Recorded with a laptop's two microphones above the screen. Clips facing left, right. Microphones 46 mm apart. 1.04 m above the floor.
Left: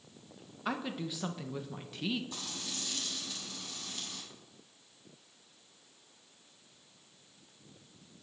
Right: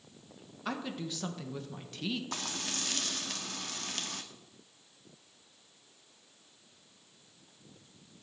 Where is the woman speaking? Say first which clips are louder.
Left 1 dB; 10° left (ahead or behind), 1.0 m.